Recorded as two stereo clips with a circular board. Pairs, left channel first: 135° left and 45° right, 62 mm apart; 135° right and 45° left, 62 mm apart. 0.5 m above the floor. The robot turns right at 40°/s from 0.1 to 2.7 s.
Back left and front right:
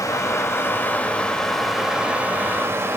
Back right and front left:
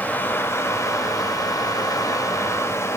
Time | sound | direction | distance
0.0 | running water | 160° left | 1.1 m